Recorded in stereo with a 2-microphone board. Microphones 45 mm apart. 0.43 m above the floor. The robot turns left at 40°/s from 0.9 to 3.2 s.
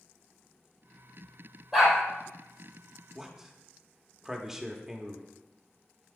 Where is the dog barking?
5° right (ahead or behind), 3 m; by 2.0 s 5° left (ahead or behind), 3 m.